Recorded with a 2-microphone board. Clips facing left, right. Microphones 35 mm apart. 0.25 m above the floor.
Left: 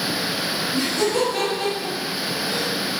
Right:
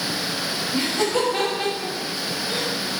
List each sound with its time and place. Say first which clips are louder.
0.7 s laughter: even; 25° right (ahead or behind), 1.3 m